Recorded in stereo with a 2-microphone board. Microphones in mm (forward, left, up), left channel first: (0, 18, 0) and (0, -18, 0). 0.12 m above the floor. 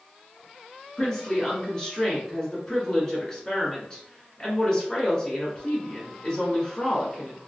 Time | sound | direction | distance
1.0 | a woman speaking | 20° left (ahead or behind) | 1.6 m